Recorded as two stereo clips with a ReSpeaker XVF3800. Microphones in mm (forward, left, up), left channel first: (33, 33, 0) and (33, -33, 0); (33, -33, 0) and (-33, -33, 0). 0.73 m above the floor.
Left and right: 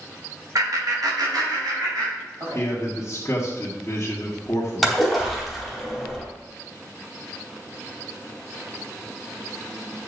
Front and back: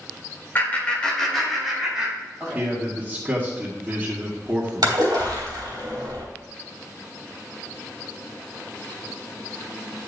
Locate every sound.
0.6 s laughter: 60° right, 2 m; by 2.6 s 110° right, 4 m
2.5 s a man speaking: 120° left, 1.7 m
4.8 s a splash: 175° right, 3 m